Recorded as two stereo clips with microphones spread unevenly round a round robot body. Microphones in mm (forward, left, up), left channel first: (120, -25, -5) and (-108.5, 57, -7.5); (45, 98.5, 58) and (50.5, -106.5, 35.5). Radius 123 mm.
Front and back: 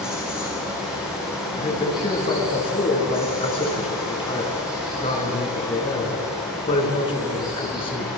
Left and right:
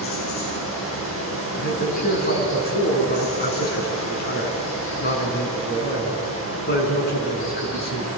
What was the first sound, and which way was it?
Running water, 75° left.